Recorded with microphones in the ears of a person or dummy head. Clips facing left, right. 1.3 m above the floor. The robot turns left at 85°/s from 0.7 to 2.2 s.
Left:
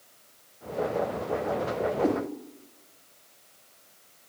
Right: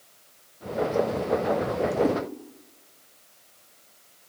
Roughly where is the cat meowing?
Centre.